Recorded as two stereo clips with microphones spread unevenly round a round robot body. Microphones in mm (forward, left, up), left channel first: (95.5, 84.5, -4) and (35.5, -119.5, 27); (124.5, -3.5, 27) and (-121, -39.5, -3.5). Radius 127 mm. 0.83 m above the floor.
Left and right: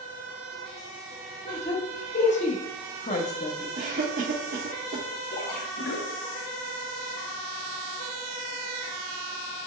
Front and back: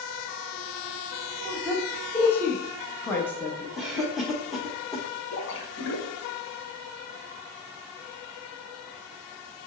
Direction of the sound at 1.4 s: 95° left.